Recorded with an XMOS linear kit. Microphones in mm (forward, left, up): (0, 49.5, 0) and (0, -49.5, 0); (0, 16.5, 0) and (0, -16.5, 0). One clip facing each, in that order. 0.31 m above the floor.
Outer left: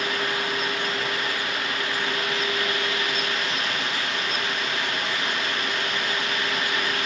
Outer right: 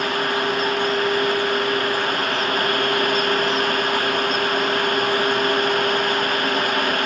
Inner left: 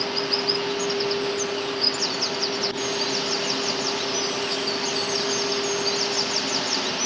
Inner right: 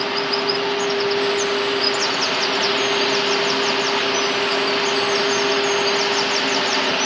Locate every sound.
Only background noise.